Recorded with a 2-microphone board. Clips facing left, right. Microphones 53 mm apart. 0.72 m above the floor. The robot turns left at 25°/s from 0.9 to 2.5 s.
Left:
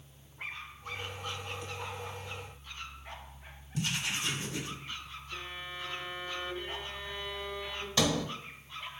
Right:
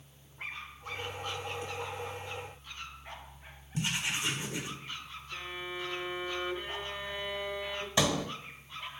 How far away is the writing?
About 1.9 m.